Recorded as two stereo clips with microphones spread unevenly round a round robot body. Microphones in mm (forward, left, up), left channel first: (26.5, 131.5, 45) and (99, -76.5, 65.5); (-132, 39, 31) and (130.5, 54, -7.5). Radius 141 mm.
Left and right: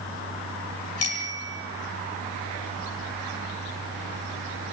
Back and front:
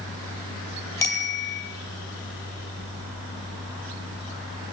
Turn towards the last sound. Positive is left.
turn(degrees=105)